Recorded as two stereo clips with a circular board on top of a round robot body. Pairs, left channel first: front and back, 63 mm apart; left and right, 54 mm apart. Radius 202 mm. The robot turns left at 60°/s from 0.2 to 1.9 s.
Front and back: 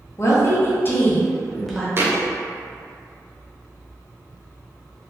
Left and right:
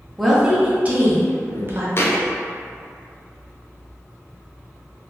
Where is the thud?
130° left, 0.6 m.